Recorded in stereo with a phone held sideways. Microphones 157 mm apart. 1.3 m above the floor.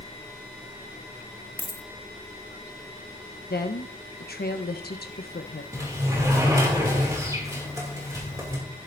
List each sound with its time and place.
1.6 s a dropped coin: 15° left (ahead or behind), 0.8 m
3.5 s a woman speaking: 85° left, 0.9 m
5.7 s a sliding door: 20° right (ahead or behind), 2.5 m